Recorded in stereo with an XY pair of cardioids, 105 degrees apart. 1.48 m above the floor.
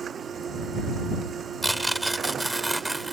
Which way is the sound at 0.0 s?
40° right.